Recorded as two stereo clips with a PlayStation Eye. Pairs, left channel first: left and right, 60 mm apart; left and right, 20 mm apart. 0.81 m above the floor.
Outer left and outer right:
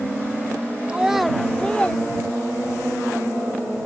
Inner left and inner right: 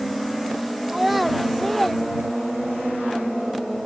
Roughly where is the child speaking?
Centre.